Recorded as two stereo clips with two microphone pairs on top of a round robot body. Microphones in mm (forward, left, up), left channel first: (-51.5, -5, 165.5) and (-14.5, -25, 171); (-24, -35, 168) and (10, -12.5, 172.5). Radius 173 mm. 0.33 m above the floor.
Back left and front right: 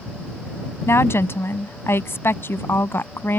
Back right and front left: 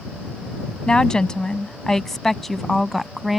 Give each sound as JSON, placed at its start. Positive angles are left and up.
{"t": 0.9, "sound": "a woman speaking", "azimuth_deg": 145}